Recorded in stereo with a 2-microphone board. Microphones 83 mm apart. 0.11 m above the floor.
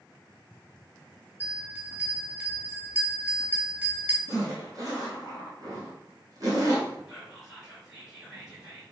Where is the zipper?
45° right (ahead or behind), 1.4 m.